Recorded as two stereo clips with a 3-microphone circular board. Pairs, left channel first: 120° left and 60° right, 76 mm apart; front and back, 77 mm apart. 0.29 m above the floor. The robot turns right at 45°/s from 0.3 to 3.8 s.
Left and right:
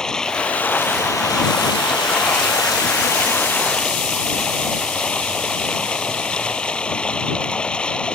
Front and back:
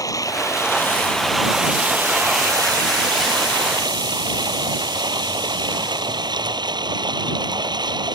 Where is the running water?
40° left; by 8.2 s 165° right.